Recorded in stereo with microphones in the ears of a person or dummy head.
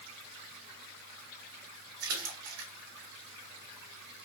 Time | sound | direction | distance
2.0 | a splash | 80° right | 2 m